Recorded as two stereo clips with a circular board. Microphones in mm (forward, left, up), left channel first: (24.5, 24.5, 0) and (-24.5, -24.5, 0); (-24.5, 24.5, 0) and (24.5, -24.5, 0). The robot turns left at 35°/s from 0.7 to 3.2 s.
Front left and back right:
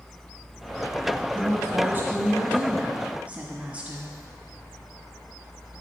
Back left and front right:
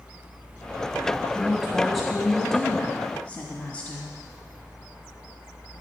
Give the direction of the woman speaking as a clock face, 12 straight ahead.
4 o'clock.